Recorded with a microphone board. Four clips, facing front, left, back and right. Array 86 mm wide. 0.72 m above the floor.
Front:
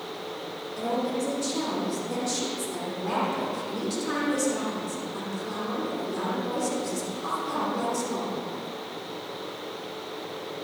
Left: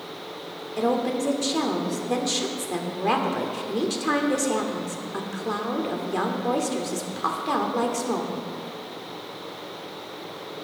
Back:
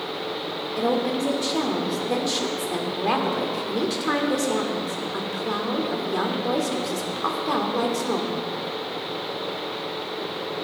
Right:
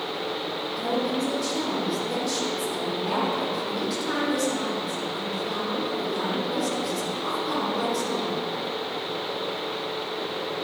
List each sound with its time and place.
0.8 s a woman speaking: 135° left, 1.8 m